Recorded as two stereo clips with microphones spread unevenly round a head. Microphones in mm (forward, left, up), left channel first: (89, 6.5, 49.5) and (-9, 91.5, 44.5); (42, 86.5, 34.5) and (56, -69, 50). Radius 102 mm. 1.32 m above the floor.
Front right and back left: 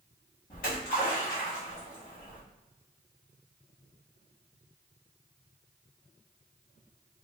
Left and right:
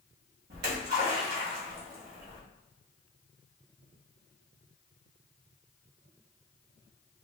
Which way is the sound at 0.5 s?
85° right.